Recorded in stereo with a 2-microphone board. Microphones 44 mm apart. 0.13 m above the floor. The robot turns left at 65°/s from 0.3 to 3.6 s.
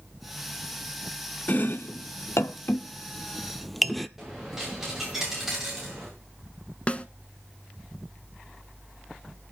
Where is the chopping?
40° left (ahead or behind), 0.7 m; by 4.1 s centre (ahead or behind), 0.7 m.